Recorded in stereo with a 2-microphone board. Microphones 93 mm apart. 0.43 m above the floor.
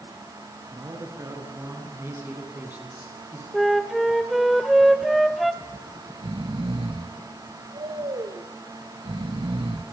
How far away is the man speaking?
About 4.5 m.